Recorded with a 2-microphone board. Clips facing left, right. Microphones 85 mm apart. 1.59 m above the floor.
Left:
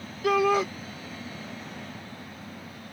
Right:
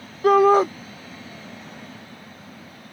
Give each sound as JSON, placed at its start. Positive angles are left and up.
{"t": 0.2, "sound": "a shout", "side_deg": -40}